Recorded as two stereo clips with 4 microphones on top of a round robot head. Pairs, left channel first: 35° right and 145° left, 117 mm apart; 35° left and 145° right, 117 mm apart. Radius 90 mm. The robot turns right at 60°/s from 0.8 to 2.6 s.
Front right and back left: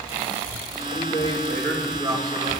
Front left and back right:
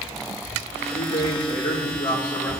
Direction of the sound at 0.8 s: Straight ahead.